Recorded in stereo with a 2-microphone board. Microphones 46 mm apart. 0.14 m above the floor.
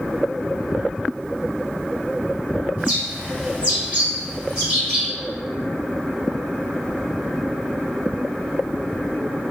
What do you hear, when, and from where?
2.8 s a bird: 25° right (ahead or behind), 2.5 m